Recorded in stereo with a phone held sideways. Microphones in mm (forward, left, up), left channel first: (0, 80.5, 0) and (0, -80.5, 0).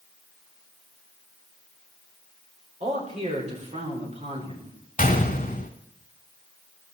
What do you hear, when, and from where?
2.8 s a man speaking: 45° right (ahead or behind), 5 m
5.0 s a gunshot: 55° left (ahead or behind), 1.8 m